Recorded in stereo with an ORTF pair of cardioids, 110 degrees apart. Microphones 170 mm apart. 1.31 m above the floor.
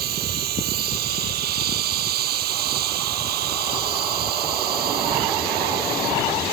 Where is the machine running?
70° right.